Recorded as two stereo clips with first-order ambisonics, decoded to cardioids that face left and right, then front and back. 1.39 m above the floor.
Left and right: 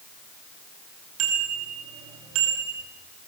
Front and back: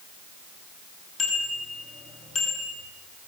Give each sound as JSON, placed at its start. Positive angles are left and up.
{"t": 1.2, "sound": "a bicycle bell", "azimuth_deg": -65, "distance_m": 9.5}